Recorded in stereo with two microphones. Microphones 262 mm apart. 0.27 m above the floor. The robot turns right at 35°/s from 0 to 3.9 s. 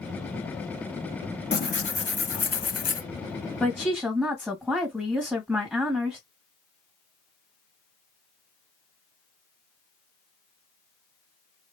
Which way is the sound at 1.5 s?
45° left.